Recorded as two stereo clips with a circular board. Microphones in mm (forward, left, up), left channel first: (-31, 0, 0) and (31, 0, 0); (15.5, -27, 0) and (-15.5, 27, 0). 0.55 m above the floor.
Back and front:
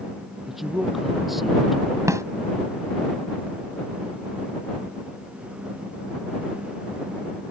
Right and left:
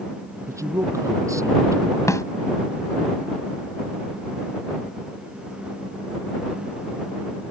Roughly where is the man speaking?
Left.